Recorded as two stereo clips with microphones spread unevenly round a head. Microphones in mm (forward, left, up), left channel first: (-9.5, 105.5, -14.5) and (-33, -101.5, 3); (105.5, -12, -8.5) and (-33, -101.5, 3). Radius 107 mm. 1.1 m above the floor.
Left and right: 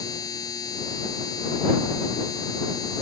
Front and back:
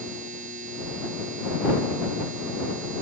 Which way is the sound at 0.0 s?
155° left.